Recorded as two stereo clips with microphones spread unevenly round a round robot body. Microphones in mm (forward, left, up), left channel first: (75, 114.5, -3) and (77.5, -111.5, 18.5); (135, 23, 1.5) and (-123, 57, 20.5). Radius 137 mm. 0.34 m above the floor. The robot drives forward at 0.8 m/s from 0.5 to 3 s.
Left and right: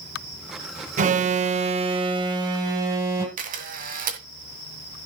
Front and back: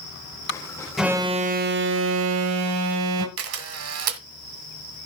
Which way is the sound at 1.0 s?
90° right.